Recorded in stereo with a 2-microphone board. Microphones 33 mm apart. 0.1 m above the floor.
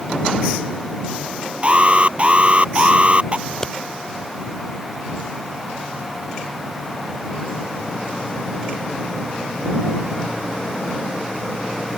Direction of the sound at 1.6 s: 35° right (ahead or behind).